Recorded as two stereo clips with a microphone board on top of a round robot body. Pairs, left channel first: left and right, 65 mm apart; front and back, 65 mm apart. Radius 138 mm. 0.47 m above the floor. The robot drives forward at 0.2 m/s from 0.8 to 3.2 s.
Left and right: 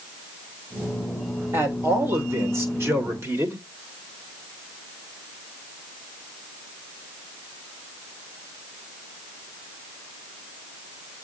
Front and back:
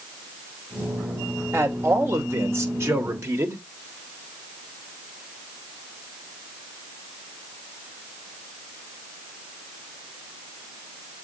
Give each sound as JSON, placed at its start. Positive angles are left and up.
{"t": 1.5, "sound": "a man speaking", "azimuth_deg": -130, "distance_m": 2.5}